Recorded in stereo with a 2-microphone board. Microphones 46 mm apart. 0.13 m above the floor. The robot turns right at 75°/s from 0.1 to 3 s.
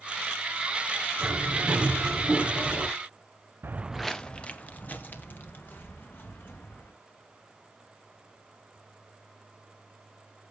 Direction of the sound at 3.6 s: 50° right (ahead or behind).